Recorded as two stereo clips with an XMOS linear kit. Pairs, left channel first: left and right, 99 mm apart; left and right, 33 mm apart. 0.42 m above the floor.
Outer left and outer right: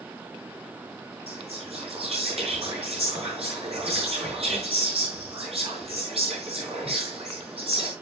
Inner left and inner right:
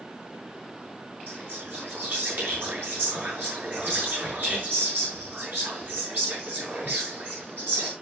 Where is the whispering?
70° right (ahead or behind), 6.5 m.